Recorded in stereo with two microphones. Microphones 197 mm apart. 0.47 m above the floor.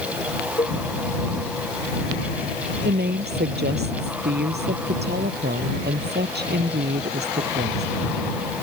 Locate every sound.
0.6 s a cowbell: 30° left (ahead or behind)
2.8 s a woman speaking: 55° right (ahead or behind)